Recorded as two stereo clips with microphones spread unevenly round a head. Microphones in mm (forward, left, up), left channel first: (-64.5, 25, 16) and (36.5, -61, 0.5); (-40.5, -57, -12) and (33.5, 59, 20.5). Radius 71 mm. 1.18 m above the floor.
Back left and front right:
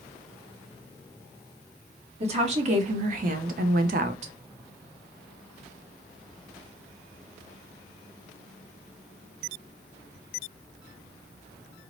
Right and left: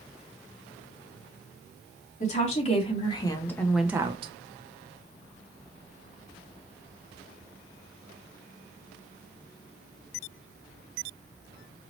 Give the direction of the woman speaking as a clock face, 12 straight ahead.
3 o'clock.